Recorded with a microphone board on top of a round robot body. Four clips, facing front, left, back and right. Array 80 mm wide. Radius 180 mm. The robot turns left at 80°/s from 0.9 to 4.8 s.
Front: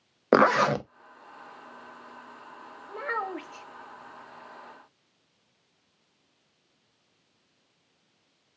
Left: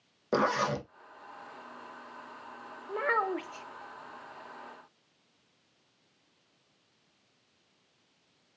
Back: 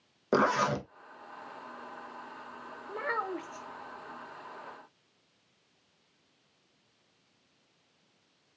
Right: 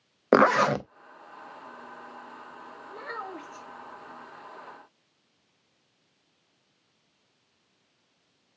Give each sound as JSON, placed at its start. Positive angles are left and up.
{"t": 0.3, "sound": "a zipper", "azimuth_deg": -55, "distance_m": 0.6}
{"t": 2.9, "sound": "a child speaking", "azimuth_deg": 100, "distance_m": 0.8}